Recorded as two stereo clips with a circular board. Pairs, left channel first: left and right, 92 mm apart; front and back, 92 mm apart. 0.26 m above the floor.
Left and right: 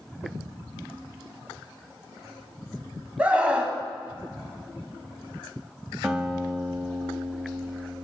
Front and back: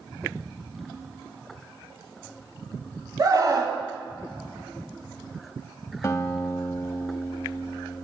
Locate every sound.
3.2 s a scream: 160° right, 1.3 m
6.0 s a guitar: 15° right, 0.8 m